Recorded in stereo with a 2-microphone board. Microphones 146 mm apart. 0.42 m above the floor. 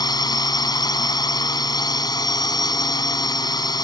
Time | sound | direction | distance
0.0 | a drone | 30° left (ahead or behind) | ?